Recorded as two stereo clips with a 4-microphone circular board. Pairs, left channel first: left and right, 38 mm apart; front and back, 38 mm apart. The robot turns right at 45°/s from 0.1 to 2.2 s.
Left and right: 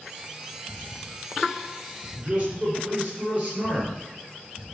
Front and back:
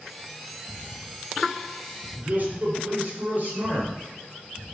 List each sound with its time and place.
2.1 s a man speaking: 140° right, 3 m